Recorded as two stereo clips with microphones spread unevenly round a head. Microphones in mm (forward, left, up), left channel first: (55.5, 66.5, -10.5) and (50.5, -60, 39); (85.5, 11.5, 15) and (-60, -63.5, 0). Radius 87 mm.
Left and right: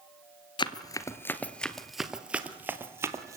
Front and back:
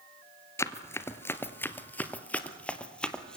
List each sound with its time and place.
0.6 s running footsteps: 30° left, 1.1 m; by 3.4 s 50° right, 1.7 m